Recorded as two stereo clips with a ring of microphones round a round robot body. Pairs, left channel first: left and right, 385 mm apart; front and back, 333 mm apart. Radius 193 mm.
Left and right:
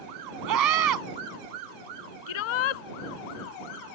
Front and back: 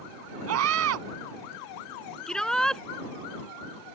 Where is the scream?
130° right.